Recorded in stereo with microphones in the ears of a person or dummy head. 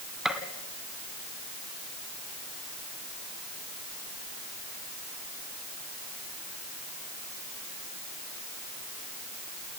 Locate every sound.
0.2 s a gunshot: centre (ahead or behind), 2 m